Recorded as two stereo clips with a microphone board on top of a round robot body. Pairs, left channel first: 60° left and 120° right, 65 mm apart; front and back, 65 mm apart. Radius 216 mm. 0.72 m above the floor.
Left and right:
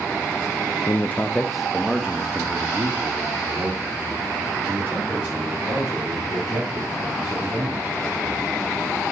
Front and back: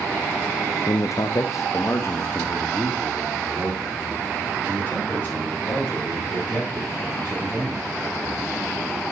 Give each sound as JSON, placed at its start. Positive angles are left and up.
{"t": 0.9, "sound": "a man speaking", "azimuth_deg": 20, "distance_m": 0.7}